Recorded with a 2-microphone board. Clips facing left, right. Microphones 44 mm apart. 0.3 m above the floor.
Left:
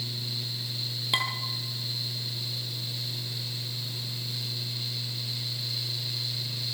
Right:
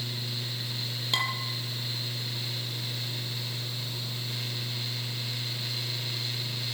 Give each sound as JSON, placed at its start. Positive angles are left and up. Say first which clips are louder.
{"t": 1.1, "sound": "dishes clattering", "louder": "left 1 dB", "side_deg": 15, "distance_m": 5.5}